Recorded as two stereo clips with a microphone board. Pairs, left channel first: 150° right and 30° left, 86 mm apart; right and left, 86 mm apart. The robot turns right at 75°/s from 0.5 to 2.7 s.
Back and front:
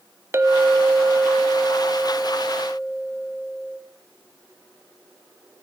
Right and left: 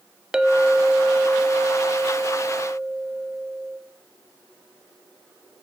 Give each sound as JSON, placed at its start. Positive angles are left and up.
{"t": 0.3, "sound": "a clink", "azimuth_deg": 20, "distance_m": 0.6}